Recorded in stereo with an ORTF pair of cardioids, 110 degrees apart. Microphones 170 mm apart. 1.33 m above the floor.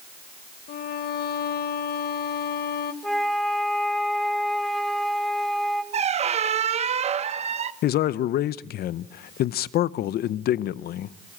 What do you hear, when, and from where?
0.7 s a violin: 60° left, 1.8 m
3.0 s a flute: straight ahead, 2 m
5.9 s a squeak: 40° right, 1.0 m
7.8 s a man speaking: 65° left, 0.7 m